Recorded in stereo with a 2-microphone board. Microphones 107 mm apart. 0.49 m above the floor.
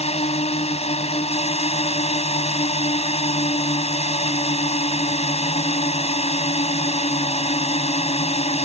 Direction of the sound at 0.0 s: 70° left (ahead or behind).